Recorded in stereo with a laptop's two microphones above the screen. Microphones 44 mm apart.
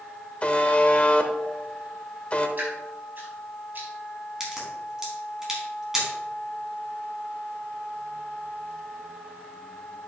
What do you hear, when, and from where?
0.4 s a buzzer: 30° left (ahead or behind), 0.7 m
2.6 s dripping: 50° right (ahead or behind), 4.5 m
4.4 s a crack: 15° right (ahead or behind), 4.5 m